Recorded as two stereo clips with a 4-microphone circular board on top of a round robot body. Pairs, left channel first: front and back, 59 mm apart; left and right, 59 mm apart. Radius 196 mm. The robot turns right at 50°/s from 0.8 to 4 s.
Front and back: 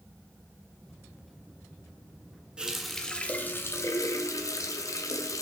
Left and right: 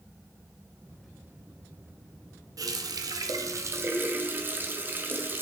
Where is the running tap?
105° right, 0.7 m; by 5.4 s 35° right, 0.7 m.